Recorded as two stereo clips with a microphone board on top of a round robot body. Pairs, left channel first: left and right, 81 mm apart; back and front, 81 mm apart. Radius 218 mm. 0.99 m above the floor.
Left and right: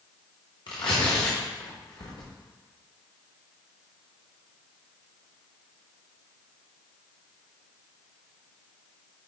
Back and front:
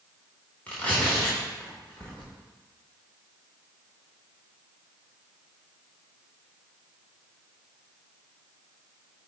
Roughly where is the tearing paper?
Left.